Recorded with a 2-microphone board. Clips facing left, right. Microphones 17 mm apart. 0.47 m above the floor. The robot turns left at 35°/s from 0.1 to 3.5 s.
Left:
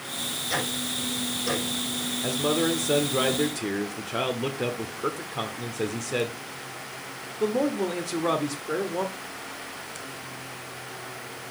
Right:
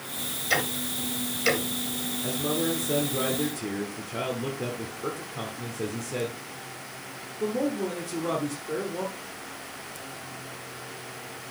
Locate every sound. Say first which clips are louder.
0.5 s ticking: right 3 dB; 30° right (ahead or behind), 2.5 m; by 1.6 s 70° right (ahead or behind), 2.5 m
2.2 s a man speaking: left 3 dB; 125° left, 1.1 m; by 9.1 s 80° left, 1.1 m